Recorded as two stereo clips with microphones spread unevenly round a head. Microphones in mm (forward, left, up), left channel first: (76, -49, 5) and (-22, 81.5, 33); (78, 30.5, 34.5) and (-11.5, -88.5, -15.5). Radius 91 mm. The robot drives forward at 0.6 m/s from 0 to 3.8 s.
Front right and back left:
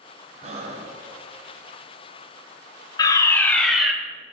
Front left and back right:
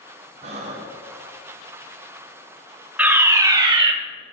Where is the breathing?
175° right, 1.0 m.